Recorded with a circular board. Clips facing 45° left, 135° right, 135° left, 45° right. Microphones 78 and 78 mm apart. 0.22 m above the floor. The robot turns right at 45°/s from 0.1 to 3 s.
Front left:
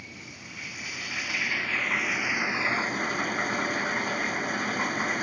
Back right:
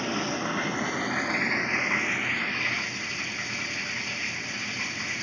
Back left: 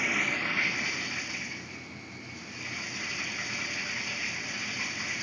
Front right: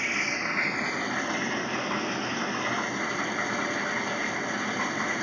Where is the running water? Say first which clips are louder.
Back right 17 dB, front right 1 dB; 135° right; by 5.2 s 5° right.